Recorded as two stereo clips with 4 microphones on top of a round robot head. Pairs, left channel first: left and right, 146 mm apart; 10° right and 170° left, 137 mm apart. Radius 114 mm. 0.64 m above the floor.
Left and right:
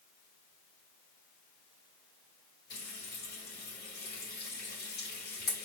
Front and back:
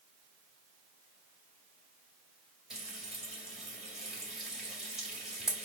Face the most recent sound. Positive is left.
turn(degrees=80)